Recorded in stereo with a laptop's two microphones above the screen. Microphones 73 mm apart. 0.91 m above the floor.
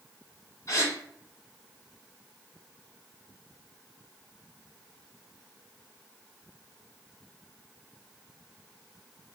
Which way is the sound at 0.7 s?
40° left (ahead or behind).